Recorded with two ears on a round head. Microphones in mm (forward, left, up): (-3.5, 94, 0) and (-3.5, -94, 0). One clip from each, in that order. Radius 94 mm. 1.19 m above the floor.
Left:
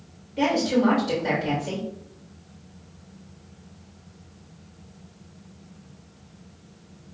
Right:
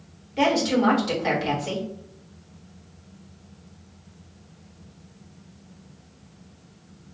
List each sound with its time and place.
0.4 s a woman speaking: 40° right (ahead or behind), 2 m